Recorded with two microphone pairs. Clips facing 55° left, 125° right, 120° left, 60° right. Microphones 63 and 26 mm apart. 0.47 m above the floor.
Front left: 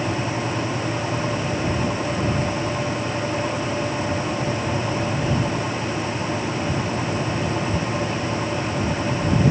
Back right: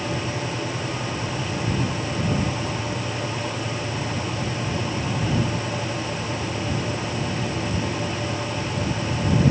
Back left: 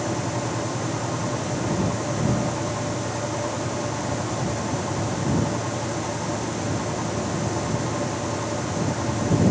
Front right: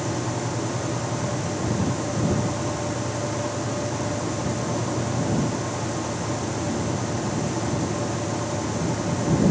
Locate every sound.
Only background noise.